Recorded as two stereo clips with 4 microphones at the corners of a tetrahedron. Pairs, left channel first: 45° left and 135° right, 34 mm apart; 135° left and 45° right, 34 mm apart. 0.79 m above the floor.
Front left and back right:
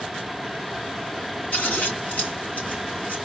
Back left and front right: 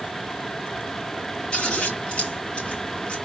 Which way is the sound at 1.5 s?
80° left.